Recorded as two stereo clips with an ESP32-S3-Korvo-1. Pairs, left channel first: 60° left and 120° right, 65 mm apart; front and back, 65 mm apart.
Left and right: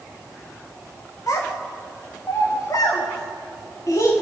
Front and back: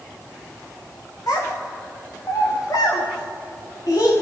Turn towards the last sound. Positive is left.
turn(degrees=25)